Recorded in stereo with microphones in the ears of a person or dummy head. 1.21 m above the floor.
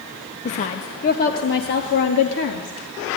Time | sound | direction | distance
0.5 | a woman speaking | 40° left (ahead or behind) | 1.0 m